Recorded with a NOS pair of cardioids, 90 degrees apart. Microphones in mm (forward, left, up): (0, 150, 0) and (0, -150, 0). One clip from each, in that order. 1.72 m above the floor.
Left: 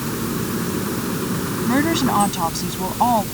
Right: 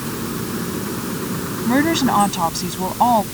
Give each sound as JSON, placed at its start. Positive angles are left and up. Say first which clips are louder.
{"t": 0.0, "sound": "a machine running", "louder": "left 1 dB", "azimuth_deg": 5}
{"t": 1.6, "sound": "a woman speaking", "louder": "right 2 dB", "azimuth_deg": -25}